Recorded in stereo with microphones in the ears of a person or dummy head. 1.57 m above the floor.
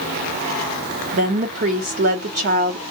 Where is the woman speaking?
35° right (ahead or behind), 0.7 m.